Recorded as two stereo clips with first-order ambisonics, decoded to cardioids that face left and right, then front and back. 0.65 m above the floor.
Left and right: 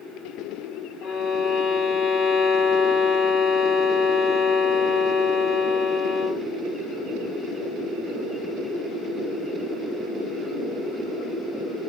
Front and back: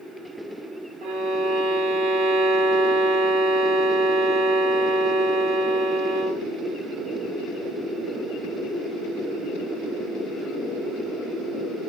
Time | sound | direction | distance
1.0 | a violin | 150° left | 0.8 m